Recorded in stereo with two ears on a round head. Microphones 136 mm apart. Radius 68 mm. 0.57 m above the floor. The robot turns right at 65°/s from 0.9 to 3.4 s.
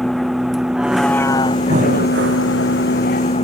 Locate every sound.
0.0 s a vehicle: centre (ahead or behind); by 3.5 s 40° left (ahead or behind)
1.7 s breathing: 135° right; by 2.5 s 85° right